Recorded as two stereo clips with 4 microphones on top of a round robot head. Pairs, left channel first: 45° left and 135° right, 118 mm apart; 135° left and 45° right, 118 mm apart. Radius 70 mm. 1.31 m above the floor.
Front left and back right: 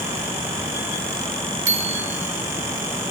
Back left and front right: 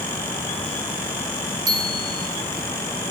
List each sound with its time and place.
1.7 s a bicycle bell: 110° right, 3.5 m